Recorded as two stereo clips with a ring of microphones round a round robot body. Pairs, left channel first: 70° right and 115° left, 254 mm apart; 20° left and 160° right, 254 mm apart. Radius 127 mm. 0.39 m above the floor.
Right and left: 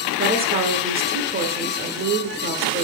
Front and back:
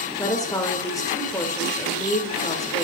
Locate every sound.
0.2 s a woman speaking: 90° left, 1.3 m